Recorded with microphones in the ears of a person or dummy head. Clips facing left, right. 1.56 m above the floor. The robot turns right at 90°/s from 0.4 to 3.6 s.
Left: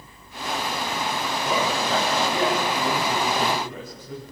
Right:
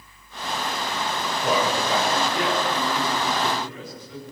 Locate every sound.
1.4 s a man speaking: 55° right, 9 m; by 4.2 s 140° left, 9 m